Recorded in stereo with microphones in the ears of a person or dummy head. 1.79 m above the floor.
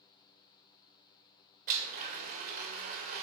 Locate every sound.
1.7 s a blender: 45° right (ahead or behind), 1.7 m